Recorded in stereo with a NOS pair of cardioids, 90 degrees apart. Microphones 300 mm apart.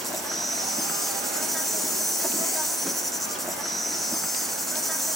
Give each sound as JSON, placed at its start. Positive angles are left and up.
{"t": 0.0, "sound": "an insect", "azimuth_deg": 0, "distance_m": 1.3}